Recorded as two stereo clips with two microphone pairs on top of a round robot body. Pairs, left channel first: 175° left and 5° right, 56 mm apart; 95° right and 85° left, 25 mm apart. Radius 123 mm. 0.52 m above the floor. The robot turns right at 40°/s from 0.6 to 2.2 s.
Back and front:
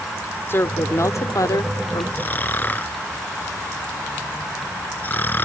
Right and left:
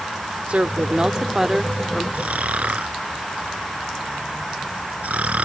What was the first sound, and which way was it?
A woman speaking, 130° left.